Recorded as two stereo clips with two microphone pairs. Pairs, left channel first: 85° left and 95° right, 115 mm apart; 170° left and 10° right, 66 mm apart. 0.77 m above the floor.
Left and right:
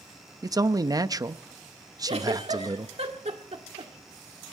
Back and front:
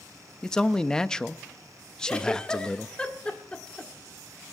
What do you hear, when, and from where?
0.4 s a man speaking: 120° right, 0.5 m
2.1 s a giggle: 115° right, 1.7 m